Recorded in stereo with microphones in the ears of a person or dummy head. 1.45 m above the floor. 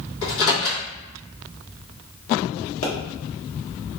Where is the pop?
65° left (ahead or behind), 1.0 m.